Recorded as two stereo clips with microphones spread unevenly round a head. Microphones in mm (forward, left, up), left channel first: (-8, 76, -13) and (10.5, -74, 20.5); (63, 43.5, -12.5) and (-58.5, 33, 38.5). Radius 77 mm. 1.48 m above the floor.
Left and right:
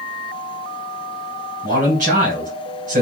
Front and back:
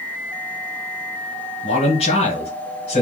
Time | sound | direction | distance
1.6 | a man speaking | 45° right | 1.6 m